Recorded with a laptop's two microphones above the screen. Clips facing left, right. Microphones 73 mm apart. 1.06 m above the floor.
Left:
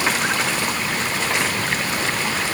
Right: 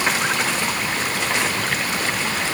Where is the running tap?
I don't hear a running tap.